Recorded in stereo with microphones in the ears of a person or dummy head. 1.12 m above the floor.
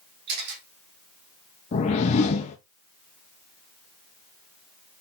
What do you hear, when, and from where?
0.3 s a camera shutter: 55° right (ahead or behind), 3 m
1.7 s a whoosh: 45° left (ahead or behind), 0.8 m